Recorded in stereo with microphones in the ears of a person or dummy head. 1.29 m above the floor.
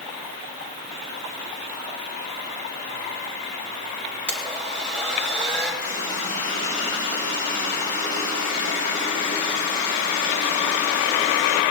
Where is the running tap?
70° left (ahead or behind), 5.5 m.